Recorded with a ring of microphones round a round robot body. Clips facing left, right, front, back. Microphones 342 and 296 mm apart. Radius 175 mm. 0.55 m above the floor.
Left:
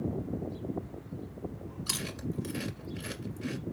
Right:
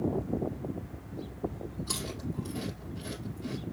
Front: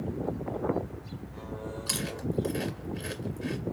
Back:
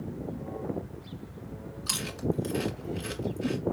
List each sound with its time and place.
1.9 s chewing: 100° left, 1.8 m